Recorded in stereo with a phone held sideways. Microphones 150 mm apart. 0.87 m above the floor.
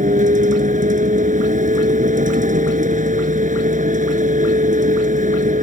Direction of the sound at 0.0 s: 65° right (ahead or behind).